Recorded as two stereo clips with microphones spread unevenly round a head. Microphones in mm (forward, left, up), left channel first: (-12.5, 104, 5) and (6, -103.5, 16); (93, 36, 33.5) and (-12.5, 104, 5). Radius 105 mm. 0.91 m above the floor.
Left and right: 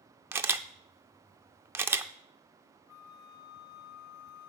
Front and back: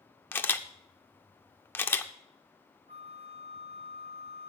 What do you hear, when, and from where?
0.3 s a camera shutter: 25° right, 0.5 m
2.9 s a flute: 105° left, 1.0 m